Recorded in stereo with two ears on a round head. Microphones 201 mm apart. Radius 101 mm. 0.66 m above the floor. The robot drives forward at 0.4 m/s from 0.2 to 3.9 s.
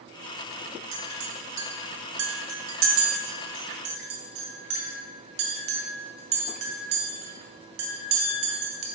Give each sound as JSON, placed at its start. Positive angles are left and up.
{"t": 0.9, "sound": "a clink", "side_deg": -80, "distance_m": 1.2}